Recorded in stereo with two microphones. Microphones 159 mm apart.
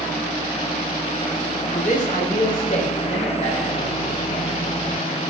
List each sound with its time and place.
1.8 s a man speaking: 50° left (ahead or behind), 1.0 m; by 4.5 s 45° left (ahead or behind), 4 m